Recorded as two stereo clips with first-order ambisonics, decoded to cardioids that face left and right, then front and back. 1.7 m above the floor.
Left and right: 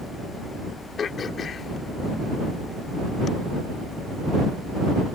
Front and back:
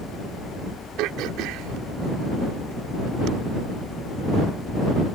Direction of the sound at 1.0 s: 155° left.